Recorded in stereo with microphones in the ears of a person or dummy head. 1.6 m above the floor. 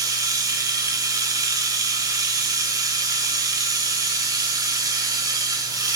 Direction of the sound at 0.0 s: 25° right (ahead or behind).